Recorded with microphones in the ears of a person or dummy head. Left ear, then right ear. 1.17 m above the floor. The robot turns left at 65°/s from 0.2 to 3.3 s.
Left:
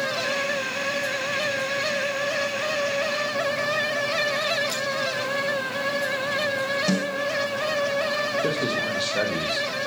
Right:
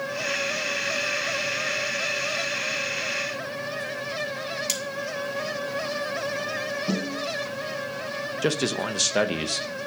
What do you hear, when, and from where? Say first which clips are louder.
4.7 s cutlery clinking: left 1 dB; 50° right (ahead or behind), 1.1 m
6.9 s a snare drum: left 4 dB; 75° left (ahead or behind), 2.5 m
8.4 s a man speaking: left 1 dB; 60° right (ahead or behind), 0.9 m